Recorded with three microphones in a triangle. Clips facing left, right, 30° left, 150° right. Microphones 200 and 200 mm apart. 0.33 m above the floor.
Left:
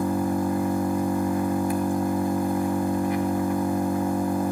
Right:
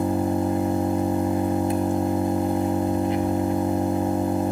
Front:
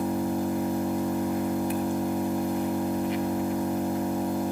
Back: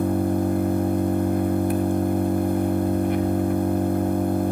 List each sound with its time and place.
0.0 s an engine running: 150° right, 1.6 m